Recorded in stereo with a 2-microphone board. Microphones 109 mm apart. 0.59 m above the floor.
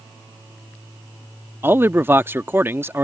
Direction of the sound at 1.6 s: 20° right (ahead or behind).